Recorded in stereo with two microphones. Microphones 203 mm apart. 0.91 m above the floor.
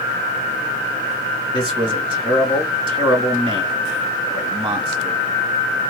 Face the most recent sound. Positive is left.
turn(degrees=-25)  # may be behind; listen again after turning